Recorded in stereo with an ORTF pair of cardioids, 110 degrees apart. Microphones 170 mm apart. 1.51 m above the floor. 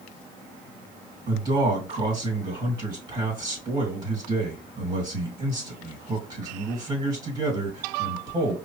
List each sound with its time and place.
1.3 s a man speaking: 30° right, 2 m